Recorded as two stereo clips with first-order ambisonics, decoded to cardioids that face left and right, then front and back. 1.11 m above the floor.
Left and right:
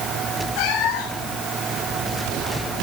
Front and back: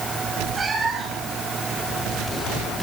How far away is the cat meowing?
About 3 m.